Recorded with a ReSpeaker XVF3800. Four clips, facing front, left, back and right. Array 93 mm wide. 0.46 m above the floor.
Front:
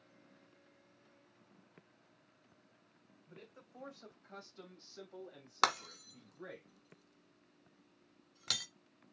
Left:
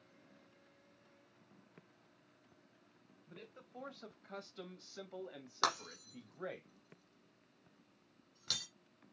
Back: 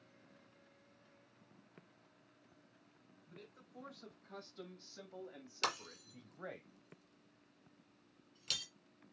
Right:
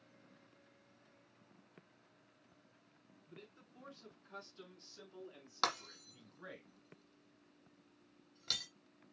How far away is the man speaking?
About 2.5 m.